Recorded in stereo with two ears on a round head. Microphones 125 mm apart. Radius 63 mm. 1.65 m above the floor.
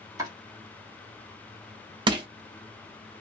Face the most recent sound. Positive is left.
turn(degrees=-35)  # may be behind; listen again after turning